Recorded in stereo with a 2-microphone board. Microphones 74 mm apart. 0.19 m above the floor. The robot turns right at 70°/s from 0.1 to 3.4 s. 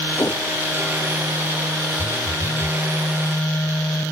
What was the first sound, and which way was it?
A whoosh, 50° left (ahead or behind).